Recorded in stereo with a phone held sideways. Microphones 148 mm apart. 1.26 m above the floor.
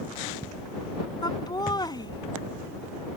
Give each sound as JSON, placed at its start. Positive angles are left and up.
{"t": 1.2, "sound": "laughter", "side_deg": 25}